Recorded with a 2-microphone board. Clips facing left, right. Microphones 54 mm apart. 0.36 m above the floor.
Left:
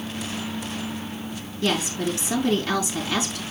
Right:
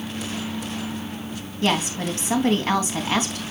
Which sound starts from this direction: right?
A woman speaking, at 1.6 s.